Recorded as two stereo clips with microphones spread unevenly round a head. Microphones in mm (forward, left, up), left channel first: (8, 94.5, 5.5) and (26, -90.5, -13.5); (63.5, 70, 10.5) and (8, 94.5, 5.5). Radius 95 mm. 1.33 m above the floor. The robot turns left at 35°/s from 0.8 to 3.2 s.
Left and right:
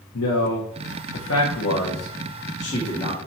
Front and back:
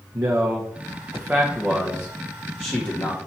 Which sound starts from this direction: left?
A man speaking, at 0.1 s.